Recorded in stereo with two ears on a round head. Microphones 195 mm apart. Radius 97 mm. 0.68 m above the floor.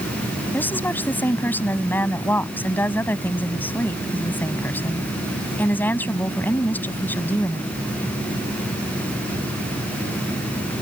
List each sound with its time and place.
0.5 s a woman speaking: 10° left (ahead or behind)